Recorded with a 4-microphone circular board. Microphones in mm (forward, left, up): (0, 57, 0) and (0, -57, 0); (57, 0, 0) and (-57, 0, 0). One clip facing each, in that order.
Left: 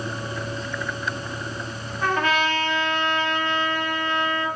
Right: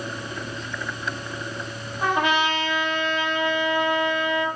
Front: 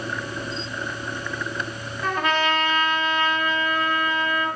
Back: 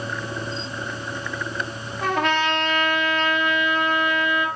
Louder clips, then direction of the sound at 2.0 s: Right 1 dB, back 1 dB; 165° right.